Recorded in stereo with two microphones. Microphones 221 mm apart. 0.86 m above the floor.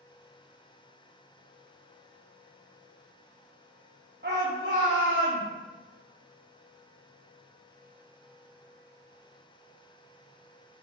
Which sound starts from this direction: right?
A shout, at 4.2 s.